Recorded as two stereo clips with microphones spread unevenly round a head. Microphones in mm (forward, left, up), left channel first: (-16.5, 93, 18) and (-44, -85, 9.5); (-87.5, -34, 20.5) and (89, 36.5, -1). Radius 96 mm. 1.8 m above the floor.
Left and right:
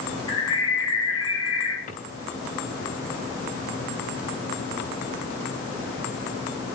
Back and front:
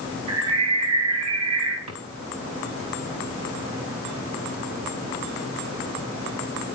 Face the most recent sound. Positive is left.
turn(degrees=30)